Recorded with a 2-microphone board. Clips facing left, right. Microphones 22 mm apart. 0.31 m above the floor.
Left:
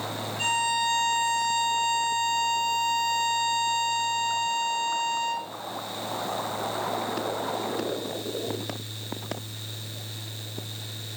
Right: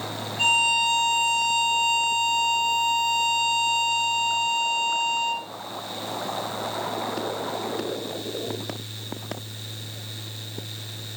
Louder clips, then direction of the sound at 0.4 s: Right 5 dB; 30° right (ahead or behind).